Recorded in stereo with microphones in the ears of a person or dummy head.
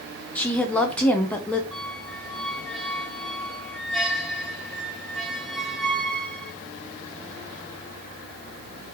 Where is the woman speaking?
15° left (ahead or behind), 0.9 m.